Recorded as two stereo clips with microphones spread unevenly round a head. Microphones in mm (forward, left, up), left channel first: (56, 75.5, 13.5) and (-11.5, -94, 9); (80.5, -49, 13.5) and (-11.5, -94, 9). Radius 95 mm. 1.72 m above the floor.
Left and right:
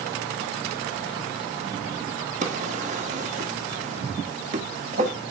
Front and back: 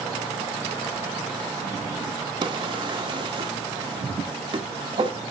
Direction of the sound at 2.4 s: 145° right.